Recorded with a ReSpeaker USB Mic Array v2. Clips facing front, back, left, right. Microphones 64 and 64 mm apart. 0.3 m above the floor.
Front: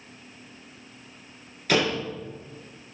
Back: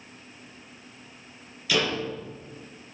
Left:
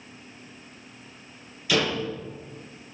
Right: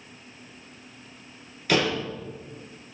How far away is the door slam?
About 6.5 m.